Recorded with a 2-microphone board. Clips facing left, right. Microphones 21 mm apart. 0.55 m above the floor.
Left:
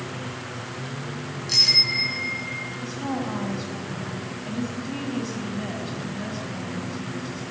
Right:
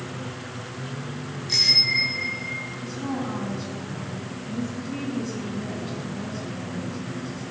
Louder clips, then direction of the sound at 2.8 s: Left 1 dB; 75° left (ahead or behind).